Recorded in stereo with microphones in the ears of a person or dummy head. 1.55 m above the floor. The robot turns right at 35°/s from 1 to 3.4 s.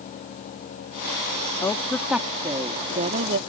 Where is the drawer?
No drawer in this recording.